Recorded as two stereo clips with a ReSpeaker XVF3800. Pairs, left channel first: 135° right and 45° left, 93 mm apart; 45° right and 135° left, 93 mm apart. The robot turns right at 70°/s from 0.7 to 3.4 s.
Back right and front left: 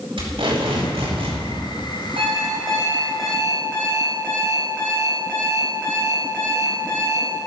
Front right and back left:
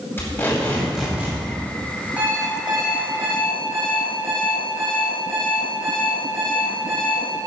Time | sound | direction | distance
0.2 | tape being pulled | 20° left | 4.5 m
2.2 | an alarm clock | 60° left | 4 m